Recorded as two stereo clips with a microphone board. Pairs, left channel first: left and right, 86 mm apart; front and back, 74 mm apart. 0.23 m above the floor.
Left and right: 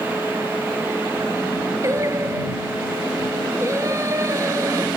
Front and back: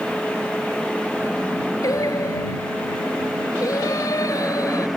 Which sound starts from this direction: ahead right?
Singing, at 1.8 s.